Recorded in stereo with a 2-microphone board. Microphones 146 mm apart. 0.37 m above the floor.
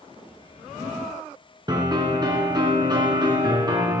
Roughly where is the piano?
Right.